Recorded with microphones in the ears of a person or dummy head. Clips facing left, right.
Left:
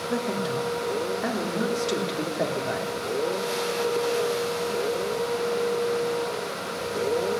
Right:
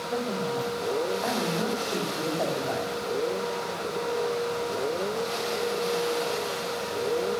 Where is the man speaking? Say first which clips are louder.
Left 1 dB; 30° left (ahead or behind), 3 m.